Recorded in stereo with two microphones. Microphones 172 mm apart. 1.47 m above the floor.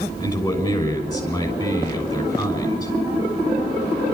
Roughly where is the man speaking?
Left.